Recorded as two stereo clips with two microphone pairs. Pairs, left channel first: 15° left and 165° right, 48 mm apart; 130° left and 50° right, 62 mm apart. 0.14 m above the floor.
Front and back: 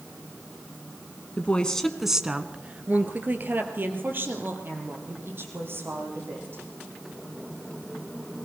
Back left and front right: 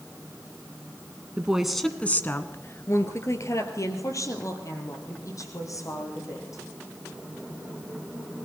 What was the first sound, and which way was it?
A woman speaking, 5° left.